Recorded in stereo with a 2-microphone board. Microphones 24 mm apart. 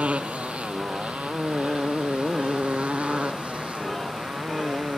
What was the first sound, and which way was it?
A motorcycle, 85° right.